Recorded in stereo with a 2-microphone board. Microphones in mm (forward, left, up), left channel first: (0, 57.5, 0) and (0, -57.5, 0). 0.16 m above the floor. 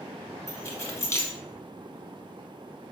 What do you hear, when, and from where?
0.5 s keys jangling: 25° left (ahead or behind), 1.0 m